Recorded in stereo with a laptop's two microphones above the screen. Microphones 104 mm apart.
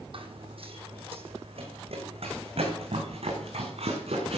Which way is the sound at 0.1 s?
60° right (ahead or behind).